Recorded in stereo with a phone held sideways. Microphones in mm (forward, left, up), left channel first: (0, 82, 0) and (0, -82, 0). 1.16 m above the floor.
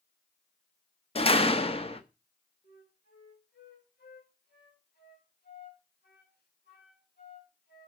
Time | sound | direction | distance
1.1 | a door slam | 35° left (ahead or behind) | 1.1 m
2.6 | a flute | 85° left | 5.5 m